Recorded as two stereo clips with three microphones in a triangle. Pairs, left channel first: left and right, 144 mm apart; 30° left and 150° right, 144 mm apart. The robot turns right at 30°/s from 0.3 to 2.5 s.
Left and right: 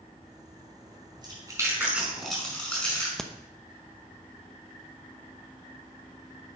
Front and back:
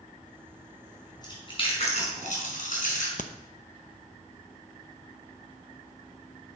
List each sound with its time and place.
1.2 s chewing: 30° right, 5 m; by 3.1 s 10° left, 5 m
3.2 s a crack: 5° left, 0.7 m